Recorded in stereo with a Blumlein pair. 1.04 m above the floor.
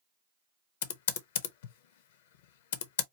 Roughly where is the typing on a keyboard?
Ahead left.